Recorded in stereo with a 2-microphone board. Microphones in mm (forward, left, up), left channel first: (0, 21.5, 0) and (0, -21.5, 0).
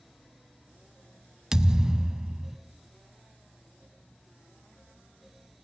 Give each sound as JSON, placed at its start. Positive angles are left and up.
{"t": 1.5, "sound": "a thud", "side_deg": -15, "distance_m": 0.6}